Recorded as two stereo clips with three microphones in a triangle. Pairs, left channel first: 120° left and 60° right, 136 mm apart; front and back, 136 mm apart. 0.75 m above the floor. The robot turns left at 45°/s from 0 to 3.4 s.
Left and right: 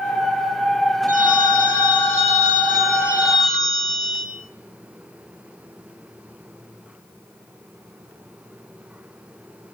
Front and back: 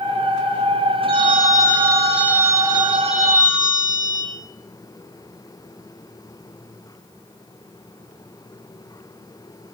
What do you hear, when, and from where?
1.1 s a phone ringing: 45° right, 8 m; by 4.3 s 150° right, 8 m